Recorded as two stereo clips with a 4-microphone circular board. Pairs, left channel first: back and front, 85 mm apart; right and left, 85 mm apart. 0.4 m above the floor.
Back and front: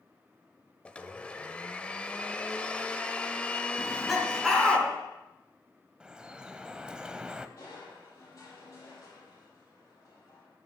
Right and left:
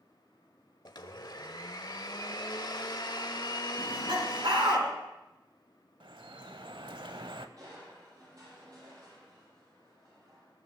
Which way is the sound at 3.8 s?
85° left.